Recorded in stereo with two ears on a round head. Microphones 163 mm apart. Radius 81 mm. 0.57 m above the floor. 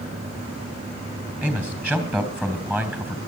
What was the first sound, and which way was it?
A man speaking, 10° right (ahead or behind).